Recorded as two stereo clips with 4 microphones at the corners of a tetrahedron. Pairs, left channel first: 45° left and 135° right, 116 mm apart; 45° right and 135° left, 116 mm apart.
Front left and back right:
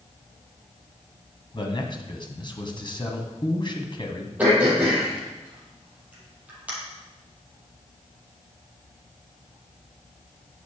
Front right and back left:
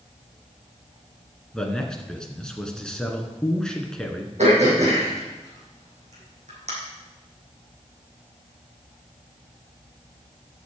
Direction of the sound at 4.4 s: 150° left.